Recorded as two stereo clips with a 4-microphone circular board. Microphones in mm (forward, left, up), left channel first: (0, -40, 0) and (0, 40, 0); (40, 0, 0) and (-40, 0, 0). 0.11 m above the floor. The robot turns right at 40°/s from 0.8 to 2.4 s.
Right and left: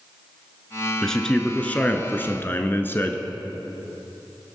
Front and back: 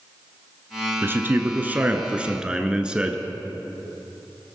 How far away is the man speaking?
About 1.2 m.